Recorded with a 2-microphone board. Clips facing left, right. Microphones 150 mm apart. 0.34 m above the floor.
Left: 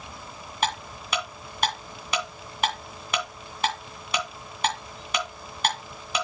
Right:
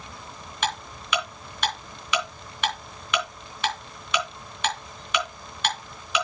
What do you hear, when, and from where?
0.6 s ticking: 35° left (ahead or behind), 3 m